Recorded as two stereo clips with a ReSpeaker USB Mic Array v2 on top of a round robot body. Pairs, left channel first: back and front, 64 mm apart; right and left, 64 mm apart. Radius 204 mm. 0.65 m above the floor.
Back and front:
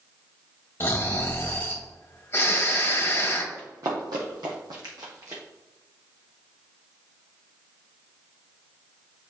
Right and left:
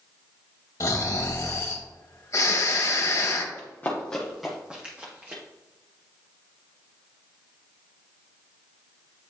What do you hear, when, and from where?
0.8 s snoring: 125° right, 1.3 m
3.5 s running footsteps: 40° right, 1.6 m; by 5.4 s 35° left, 2.0 m